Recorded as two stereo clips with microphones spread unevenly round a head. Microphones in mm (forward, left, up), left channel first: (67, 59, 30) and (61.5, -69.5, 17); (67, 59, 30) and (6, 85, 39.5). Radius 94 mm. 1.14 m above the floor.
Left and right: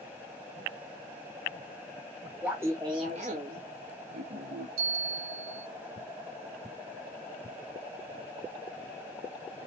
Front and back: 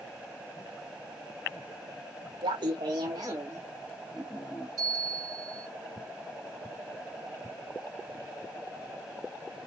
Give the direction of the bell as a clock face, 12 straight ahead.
4 o'clock.